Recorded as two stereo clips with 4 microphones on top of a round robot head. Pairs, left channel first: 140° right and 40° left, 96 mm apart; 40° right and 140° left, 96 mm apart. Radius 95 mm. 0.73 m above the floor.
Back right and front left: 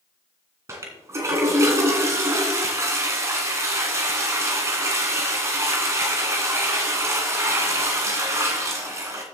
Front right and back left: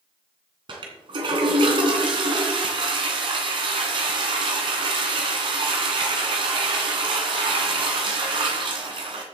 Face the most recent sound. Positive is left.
turn(degrees=100)